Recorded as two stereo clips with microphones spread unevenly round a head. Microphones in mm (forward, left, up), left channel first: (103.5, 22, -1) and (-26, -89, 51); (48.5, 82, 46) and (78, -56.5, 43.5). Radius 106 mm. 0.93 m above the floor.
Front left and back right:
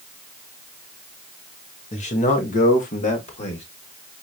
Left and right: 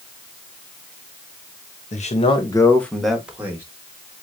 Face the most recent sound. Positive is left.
turn(degrees=-5)